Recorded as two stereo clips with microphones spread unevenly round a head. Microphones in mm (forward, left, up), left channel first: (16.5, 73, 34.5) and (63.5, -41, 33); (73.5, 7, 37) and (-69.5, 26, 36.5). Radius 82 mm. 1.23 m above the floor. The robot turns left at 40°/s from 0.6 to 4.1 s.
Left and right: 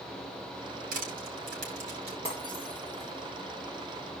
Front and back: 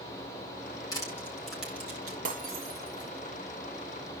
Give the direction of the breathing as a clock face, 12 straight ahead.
No breathing in this recording.